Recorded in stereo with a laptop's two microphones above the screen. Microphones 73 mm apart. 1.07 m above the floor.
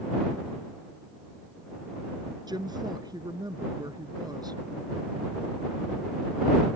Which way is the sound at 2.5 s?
70° right (ahead or behind).